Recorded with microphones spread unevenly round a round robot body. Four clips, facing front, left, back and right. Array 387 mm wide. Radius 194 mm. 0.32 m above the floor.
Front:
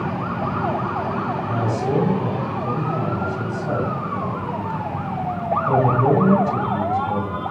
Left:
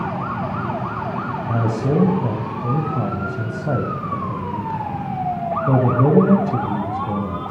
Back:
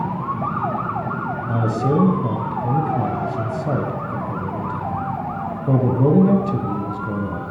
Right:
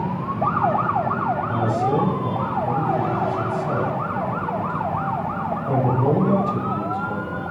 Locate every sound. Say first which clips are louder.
1.5 s a man speaking: left 4 dB, back 3 dB; 125° left, 2 m